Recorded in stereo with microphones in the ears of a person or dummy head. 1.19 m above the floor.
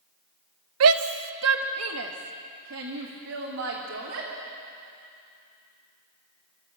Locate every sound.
0.8 s a shout: 80° right, 0.8 m; by 4.3 s 70° right (ahead or behind), 3 m